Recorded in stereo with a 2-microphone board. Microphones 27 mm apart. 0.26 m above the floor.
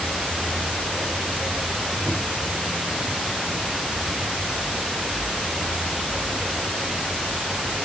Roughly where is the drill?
No drill in this recording.